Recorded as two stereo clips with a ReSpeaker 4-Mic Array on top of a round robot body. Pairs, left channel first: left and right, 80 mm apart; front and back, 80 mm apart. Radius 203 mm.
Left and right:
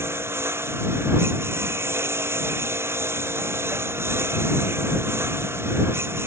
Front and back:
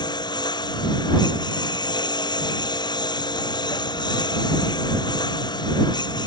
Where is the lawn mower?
30° right.